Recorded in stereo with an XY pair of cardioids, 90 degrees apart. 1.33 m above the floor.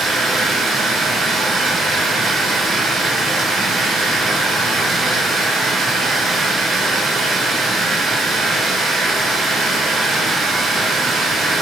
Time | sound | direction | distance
0.0 | running water | 70° right | 1.7 m